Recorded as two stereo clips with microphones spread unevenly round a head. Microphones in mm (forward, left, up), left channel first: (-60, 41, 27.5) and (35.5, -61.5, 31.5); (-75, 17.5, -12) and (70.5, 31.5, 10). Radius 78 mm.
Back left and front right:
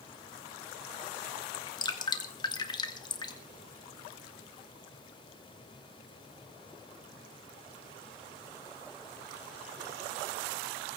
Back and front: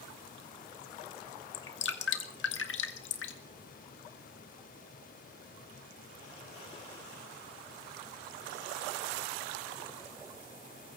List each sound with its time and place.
1.5 s dripping: 165° right, 1.8 m